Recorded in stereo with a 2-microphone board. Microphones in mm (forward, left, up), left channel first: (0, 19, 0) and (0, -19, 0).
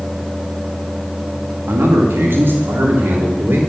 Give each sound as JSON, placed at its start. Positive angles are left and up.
{"t": 1.7, "sound": "a man speaking", "side_deg": -85, "distance_m": 2.0}